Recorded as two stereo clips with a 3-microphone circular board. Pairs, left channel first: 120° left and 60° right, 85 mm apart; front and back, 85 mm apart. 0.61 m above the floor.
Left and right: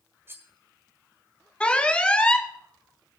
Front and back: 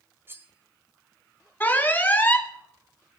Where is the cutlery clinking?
120° right, 1.8 m.